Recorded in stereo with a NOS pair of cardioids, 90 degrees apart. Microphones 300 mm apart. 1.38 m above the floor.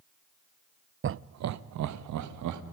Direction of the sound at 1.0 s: 40° right.